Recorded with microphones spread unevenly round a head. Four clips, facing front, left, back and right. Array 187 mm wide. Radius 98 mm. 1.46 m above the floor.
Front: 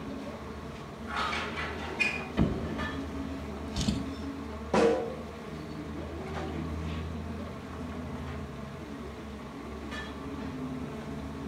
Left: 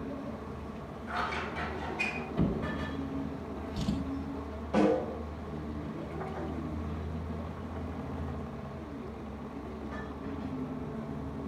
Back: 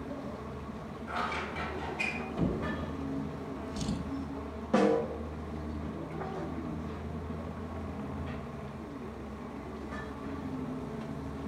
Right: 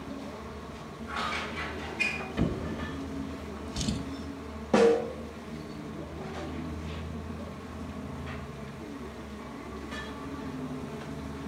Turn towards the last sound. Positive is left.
turn(degrees=-90)